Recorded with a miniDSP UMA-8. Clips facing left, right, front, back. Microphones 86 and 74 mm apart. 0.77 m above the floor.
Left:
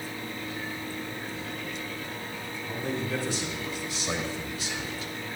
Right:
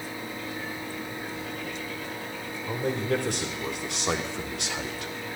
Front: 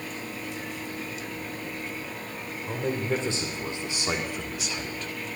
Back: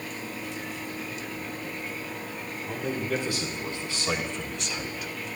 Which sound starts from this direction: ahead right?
A man speaking, at 2.7 s.